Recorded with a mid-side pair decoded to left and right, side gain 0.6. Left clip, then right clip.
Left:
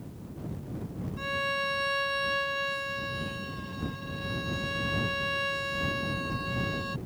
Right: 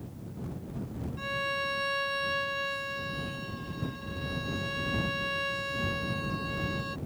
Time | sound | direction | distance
1.2 | a violin | 5° left | ?